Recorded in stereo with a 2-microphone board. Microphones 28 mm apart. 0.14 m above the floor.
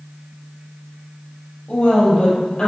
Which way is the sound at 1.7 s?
35° left (ahead or behind).